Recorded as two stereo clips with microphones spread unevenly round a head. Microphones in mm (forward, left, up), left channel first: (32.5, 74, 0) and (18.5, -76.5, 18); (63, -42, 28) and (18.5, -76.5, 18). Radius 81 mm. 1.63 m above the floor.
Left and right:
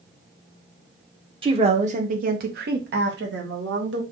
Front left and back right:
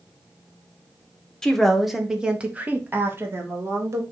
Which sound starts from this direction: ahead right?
A woman speaking, at 1.4 s.